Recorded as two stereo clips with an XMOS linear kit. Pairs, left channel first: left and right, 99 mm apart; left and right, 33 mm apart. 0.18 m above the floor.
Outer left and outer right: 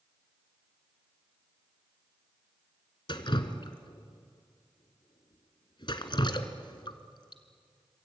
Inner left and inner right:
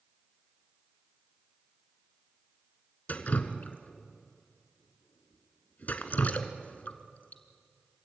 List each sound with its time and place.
3.1 s dripping: 50° left (ahead or behind), 1.6 m